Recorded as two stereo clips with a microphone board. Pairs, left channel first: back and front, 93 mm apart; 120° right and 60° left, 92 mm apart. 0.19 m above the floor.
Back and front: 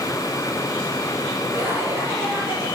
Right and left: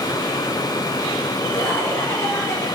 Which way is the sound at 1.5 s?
60° right.